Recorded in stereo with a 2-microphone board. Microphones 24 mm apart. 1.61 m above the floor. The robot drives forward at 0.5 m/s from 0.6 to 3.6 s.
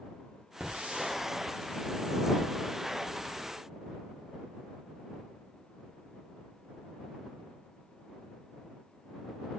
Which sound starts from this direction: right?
A hiss, at 0.6 s.